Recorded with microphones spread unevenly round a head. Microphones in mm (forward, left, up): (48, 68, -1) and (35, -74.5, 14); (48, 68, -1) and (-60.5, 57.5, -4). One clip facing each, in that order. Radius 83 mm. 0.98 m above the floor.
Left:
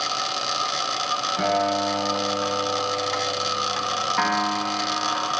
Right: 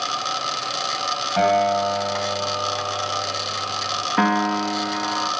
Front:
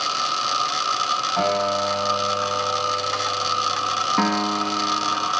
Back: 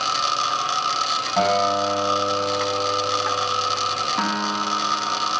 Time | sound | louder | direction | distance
1.4 | a guitar | right 5 dB, back 3 dB | 110° right | 5.5 m
4.2 | a piano | right 6 dB, front 4 dB | 55° right | 1.2 m